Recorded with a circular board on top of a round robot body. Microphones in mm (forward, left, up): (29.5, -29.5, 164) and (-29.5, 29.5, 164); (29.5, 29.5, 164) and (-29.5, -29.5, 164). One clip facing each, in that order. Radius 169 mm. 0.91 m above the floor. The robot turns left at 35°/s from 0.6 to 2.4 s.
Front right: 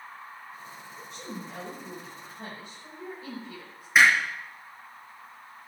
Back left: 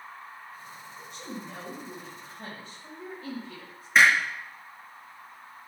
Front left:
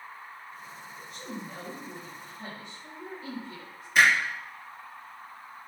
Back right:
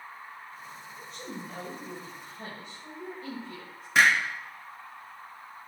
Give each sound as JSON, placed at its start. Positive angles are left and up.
{"t": 1.0, "sound": "a woman speaking", "azimuth_deg": -75, "distance_m": 6.5}
{"t": 4.0, "sound": "hammering", "azimuth_deg": -130, "distance_m": 4.5}